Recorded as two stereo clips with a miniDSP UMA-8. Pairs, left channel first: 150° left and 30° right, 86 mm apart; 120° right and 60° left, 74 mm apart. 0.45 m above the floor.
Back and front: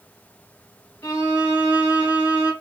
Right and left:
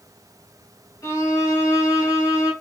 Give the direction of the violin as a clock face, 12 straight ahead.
5 o'clock.